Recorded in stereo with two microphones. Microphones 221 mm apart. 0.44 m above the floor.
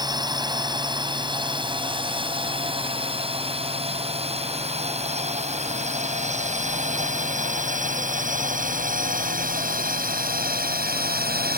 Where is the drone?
20° right (ahead or behind); by 11.6 s 45° right (ahead or behind).